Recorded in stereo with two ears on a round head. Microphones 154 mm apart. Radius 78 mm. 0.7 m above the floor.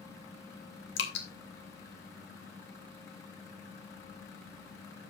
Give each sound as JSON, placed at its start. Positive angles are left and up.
{"t": 1.0, "sound": "dripping", "side_deg": 70, "distance_m": 1.9}